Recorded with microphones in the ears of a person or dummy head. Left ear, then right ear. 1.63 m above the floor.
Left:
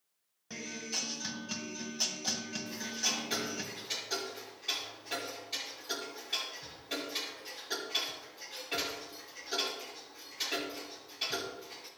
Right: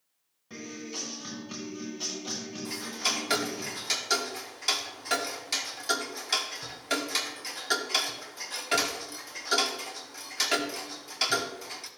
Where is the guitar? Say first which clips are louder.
Left 1 dB; 80° left, 1.6 m.